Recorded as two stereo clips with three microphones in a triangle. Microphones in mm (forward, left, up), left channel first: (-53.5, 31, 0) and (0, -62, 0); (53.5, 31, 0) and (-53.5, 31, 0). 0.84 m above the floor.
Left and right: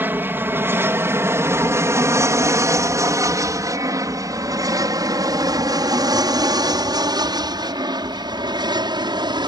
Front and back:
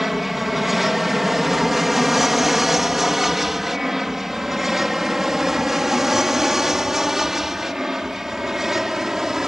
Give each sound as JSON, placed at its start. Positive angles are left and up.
{"t": 0.0, "sound": "an aircraft", "azimuth_deg": -95}